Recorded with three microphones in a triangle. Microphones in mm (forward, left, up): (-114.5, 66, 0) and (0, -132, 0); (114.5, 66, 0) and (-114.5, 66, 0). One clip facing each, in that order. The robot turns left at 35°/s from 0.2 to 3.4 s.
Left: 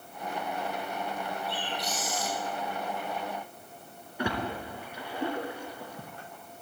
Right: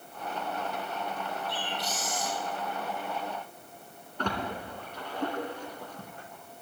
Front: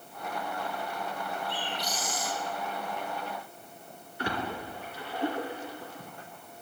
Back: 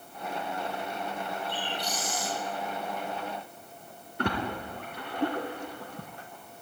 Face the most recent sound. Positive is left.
turn(degrees=-160)